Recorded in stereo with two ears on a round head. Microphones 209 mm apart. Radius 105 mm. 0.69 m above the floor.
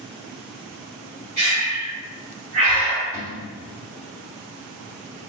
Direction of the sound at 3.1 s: 10° right (ahead or behind).